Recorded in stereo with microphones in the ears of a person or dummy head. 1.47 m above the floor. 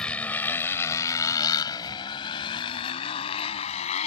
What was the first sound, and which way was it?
A motorcycle, 5° left (ahead or behind).